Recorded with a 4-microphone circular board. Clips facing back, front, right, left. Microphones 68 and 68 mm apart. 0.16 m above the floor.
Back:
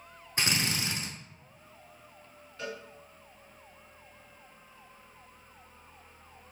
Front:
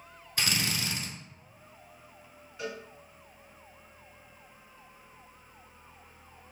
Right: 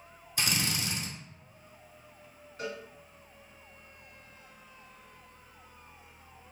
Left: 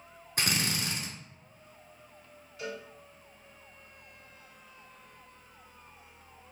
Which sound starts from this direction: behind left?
A drill, at 0.4 s.